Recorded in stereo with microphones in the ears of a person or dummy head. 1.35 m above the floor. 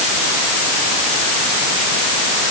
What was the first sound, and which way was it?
Only background noise.